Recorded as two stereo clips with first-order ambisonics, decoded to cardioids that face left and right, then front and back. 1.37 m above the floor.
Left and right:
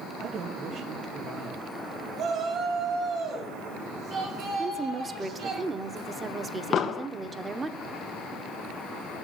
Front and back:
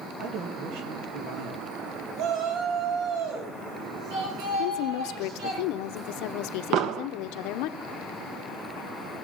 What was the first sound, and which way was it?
A man speaking, 145° right.